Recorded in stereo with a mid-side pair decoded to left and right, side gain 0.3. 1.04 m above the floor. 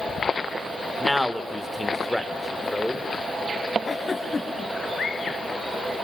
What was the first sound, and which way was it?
A man speaking, 10° left.